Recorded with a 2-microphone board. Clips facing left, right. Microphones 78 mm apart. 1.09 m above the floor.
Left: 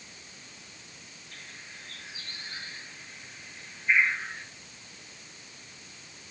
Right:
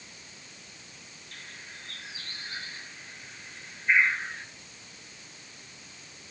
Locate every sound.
1.3 s a bird: 80° right, 6.5 m